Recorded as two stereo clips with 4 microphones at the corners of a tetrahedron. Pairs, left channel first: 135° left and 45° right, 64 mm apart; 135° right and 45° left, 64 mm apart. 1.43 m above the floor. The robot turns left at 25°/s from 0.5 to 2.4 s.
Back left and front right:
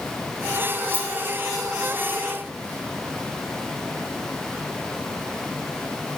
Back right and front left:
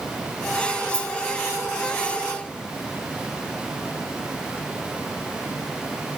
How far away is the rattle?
About 4 m.